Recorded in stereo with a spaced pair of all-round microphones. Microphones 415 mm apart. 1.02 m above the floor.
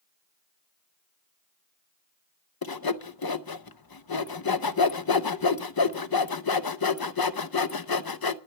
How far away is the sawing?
About 0.7 m.